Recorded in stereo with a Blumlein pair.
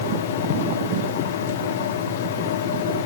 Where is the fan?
60° left, 1.6 m.